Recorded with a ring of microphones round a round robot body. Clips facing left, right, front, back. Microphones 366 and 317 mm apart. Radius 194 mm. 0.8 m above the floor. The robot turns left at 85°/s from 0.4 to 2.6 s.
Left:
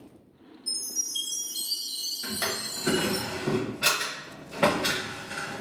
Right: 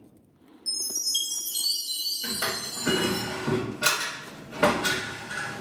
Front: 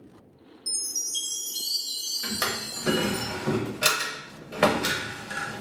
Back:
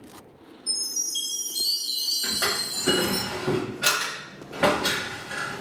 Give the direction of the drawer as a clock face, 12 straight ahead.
11 o'clock.